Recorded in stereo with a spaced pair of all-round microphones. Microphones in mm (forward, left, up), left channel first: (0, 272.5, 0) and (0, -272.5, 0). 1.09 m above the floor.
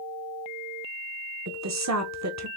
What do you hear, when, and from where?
1.5 s a woman speaking: 30° right (ahead or behind), 0.5 m